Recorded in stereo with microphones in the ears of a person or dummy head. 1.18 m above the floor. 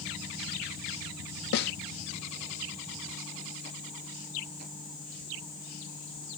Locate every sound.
1.5 s a snare drum: 55° left (ahead or behind)